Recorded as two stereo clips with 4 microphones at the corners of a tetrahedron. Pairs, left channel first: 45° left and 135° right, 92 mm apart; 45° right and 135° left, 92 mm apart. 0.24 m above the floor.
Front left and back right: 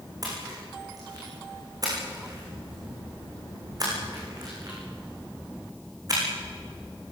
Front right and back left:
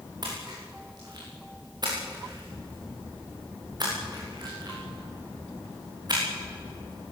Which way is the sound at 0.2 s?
Straight behind.